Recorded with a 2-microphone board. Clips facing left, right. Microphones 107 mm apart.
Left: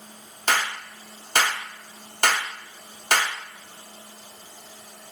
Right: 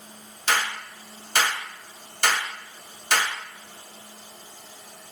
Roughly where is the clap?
Left.